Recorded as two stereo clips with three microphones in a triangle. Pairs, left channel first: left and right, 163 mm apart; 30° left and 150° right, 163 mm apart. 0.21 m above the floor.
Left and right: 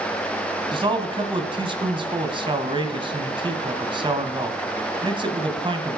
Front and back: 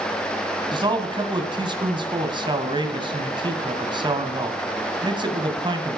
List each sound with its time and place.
0.7 s a man speaking: 120° right, 1.7 m